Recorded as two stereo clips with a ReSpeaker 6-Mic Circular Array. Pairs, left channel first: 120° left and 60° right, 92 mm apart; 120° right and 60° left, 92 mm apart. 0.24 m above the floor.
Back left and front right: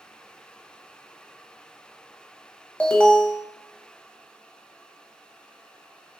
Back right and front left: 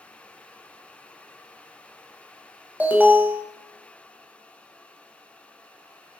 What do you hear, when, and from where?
2.8 s an alarm: 70° left, 0.8 m